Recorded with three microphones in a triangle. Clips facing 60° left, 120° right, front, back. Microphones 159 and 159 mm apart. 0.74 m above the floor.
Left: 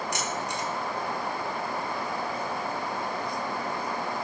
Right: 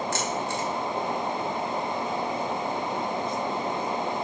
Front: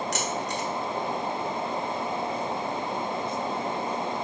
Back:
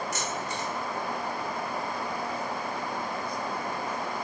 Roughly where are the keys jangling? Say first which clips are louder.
Right 3 dB, front 3 dB; ahead.